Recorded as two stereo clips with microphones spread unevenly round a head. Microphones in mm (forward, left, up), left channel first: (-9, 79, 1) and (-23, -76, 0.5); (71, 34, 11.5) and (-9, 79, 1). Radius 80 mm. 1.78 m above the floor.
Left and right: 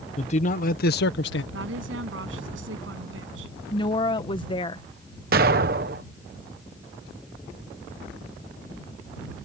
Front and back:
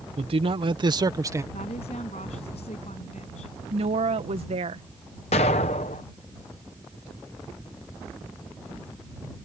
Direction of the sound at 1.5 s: 80° right.